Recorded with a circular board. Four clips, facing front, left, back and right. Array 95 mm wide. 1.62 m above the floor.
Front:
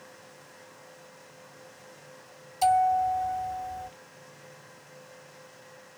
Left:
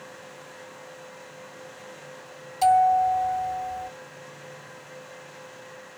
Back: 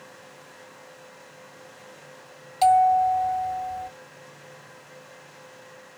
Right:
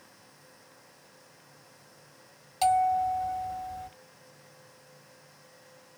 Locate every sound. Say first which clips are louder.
2.6 s a bell: left 6 dB, back 5 dB; 160° right, 1.8 m